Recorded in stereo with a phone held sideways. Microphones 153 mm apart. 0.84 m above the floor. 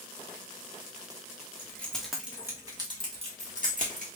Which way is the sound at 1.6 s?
15° left (ahead or behind).